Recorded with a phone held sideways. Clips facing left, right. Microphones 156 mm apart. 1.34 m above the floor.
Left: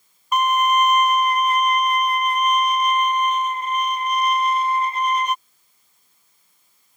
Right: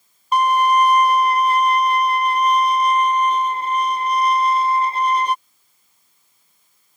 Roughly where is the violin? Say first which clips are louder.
Right 3 dB; right.